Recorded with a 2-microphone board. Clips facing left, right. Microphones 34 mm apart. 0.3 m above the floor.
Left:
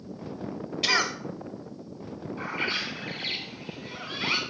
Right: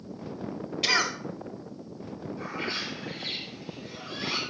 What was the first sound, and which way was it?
A cough, 5° right (ahead or behind).